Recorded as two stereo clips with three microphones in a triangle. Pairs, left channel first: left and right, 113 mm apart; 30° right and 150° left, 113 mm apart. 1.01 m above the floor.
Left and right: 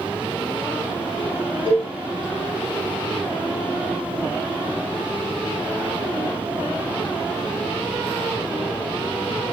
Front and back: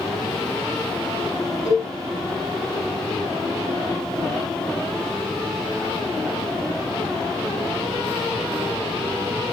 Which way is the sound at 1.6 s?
120° left.